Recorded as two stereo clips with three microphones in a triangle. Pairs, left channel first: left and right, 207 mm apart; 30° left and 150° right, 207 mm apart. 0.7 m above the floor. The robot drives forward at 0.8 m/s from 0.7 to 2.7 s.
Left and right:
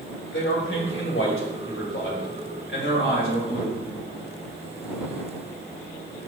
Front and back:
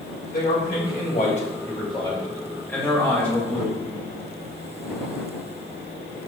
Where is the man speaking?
70° left, 2.5 m; by 3.8 s 110° left, 2.5 m.